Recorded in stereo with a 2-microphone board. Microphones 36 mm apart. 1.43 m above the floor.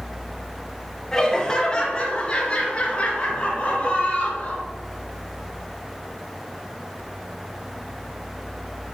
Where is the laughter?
15° left (ahead or behind), 1.4 m; by 4.6 s 40° left (ahead or behind), 3.5 m.